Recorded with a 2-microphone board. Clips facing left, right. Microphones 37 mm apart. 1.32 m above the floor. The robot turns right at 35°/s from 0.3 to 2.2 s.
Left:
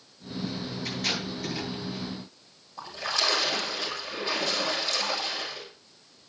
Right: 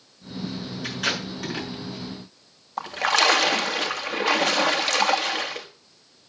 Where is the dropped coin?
I don't hear a dropped coin.